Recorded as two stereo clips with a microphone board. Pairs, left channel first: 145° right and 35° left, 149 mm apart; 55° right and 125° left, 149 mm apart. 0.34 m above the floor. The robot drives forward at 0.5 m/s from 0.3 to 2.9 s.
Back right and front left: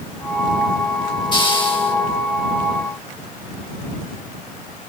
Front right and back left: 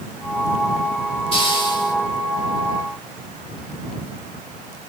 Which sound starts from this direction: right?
A hiss, at 1.3 s.